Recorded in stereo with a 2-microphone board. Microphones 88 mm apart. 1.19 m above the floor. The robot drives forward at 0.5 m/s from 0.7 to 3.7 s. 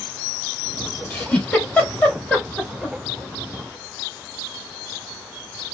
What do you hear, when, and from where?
1.1 s a giggle: 15° left (ahead or behind), 2.5 m; by 3.0 s 10° left (ahead or behind), 3.5 m